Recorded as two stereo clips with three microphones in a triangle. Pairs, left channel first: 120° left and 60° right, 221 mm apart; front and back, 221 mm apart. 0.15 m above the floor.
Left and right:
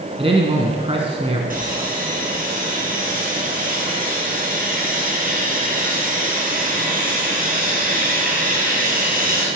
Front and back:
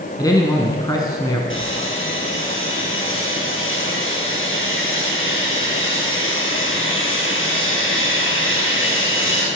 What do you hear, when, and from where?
0.2 s a man speaking: 50° right, 1.1 m
1.5 s sawing: 15° right, 2.5 m